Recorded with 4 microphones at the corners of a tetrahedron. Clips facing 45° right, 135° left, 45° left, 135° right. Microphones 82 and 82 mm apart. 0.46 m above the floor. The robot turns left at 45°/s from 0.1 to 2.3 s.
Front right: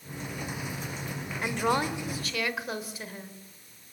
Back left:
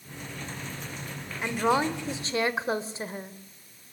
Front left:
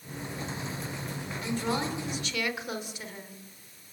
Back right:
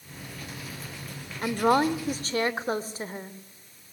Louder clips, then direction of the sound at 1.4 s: Back left 3 dB, back right 9 dB; 135° right.